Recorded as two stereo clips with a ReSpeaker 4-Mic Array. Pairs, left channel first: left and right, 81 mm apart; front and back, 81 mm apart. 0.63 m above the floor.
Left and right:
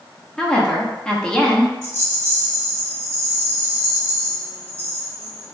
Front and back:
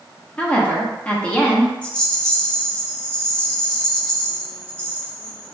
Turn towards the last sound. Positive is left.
turn(degrees=-65)